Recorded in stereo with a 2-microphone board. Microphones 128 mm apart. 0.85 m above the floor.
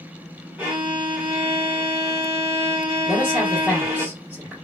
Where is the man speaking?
10° right (ahead or behind), 1.4 m.